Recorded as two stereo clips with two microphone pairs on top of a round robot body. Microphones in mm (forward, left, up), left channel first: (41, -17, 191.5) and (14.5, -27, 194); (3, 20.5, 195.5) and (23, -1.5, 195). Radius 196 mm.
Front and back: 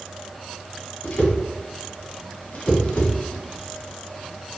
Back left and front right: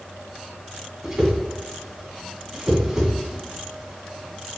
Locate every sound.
1.0 s a whoosh: 20° left, 1.9 m